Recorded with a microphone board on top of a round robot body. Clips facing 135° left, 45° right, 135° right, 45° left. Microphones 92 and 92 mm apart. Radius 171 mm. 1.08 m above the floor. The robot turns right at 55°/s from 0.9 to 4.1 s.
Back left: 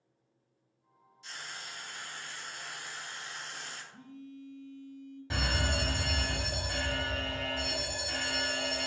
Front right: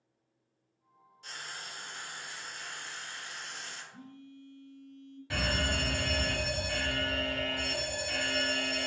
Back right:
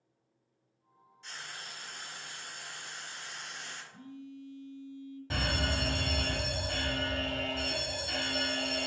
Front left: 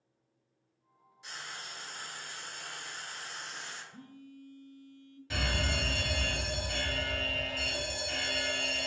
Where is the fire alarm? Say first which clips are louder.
Front right 1 dB, back right 1 dB; 170° right, 1.3 m.